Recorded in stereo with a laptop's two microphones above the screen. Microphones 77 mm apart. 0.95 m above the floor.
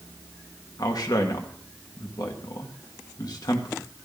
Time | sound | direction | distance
0.8 | a man speaking | 60° left (ahead or behind) | 1.6 m